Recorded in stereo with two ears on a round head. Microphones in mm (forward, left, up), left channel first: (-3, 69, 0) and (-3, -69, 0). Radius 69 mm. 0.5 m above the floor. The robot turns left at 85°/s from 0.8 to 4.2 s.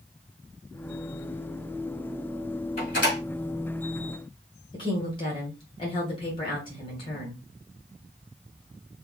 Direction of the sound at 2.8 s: 40° left (ahead or behind).